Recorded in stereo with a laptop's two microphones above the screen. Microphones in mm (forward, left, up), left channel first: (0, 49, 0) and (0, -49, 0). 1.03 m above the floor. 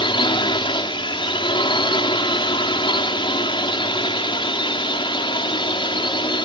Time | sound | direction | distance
0.0 | a drone | 65° left (ahead or behind) | ?